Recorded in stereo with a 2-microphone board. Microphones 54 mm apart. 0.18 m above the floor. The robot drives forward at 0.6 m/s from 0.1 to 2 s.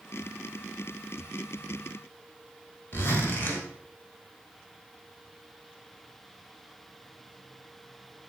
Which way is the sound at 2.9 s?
40° left (ahead or behind).